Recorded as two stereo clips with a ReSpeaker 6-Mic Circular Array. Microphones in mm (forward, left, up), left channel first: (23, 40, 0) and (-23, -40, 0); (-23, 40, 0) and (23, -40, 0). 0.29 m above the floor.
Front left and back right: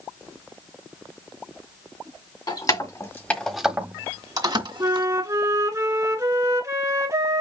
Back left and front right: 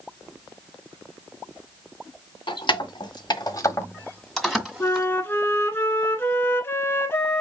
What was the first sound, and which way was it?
Keys jangling, 95° left.